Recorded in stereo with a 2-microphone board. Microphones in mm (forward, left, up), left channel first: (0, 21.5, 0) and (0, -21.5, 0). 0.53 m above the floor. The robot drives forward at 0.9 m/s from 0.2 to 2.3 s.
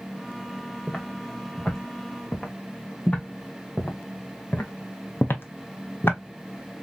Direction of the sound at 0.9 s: 15° left (ahead or behind).